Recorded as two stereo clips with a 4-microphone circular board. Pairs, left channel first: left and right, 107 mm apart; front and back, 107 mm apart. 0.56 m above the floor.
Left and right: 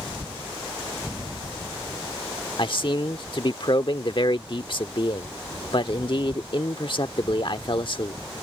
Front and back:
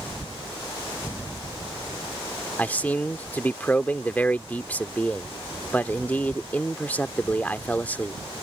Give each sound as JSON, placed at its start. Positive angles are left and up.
{"t": 2.6, "sound": "a man speaking", "azimuth_deg": 70}